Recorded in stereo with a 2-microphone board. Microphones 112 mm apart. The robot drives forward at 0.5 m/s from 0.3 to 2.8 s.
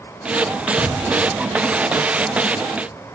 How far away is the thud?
About 5 m.